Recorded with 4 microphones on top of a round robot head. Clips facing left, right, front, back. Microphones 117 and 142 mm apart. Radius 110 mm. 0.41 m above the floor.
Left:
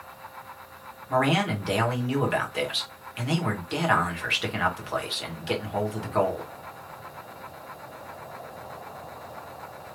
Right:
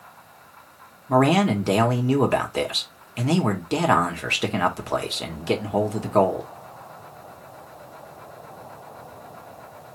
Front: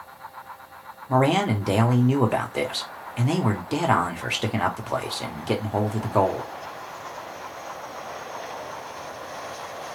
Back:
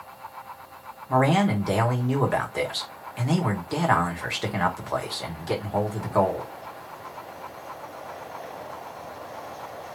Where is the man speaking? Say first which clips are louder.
Right 6 dB, even; 65° right, 1.3 m.